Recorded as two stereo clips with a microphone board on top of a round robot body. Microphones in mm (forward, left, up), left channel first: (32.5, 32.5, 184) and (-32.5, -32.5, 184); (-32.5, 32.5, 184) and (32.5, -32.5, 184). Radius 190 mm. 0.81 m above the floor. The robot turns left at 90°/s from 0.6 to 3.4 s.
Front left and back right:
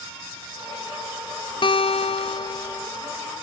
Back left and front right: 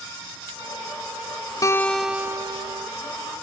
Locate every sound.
1.6 s a guitar: 80° left; by 2.9 s 35° right